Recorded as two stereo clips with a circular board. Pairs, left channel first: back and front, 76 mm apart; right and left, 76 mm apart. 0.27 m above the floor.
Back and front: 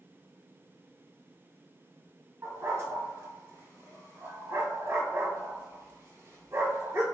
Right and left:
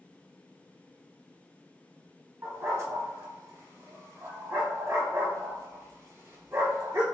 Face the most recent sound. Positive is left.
turn(degrees=45)